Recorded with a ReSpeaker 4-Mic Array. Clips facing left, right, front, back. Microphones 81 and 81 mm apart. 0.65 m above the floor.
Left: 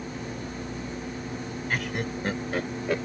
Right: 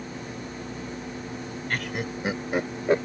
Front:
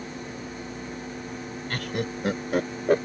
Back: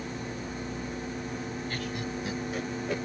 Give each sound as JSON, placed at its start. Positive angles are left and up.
{"t": 1.7, "sound": "laughter", "azimuth_deg": 5}